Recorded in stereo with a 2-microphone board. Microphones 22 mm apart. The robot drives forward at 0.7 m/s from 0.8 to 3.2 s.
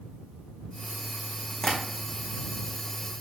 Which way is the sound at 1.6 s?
15° left (ahead or behind).